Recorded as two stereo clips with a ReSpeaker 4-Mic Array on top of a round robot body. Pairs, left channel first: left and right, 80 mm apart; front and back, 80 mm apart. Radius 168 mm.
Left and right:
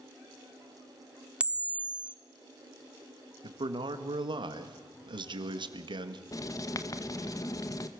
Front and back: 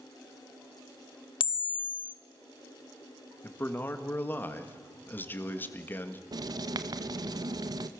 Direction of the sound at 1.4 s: 15° right.